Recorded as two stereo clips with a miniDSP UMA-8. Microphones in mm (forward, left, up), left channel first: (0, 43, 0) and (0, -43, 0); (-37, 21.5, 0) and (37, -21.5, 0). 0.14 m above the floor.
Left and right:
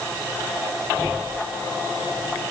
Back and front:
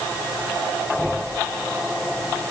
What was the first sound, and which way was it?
Only background noise.